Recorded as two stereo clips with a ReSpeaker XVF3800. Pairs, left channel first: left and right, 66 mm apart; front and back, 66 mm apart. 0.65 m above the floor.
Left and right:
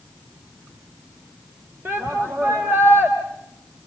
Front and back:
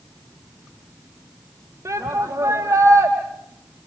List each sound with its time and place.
1.9 s a shout: 140° right, 3 m